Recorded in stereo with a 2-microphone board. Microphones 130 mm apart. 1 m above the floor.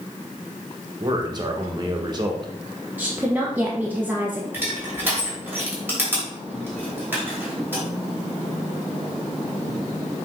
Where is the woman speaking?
10° right (ahead or behind), 1.0 m.